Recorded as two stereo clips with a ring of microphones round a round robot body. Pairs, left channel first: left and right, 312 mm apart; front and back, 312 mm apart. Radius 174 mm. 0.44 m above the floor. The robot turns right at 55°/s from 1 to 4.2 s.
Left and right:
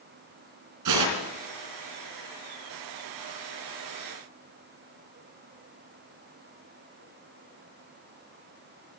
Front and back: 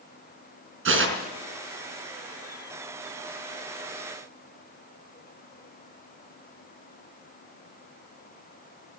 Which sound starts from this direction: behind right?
Tearing paper, at 0.8 s.